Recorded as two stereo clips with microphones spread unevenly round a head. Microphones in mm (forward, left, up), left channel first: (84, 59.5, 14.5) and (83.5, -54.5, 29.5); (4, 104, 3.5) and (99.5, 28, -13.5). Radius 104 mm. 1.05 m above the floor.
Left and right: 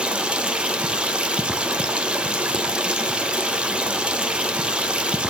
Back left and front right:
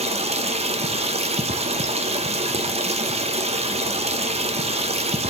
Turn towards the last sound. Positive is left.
turn(degrees=-5)